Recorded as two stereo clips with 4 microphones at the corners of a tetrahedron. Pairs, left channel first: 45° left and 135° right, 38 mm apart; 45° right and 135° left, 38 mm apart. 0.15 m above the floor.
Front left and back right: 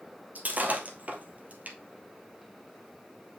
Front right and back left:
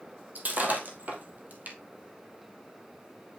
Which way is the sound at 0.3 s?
175° left.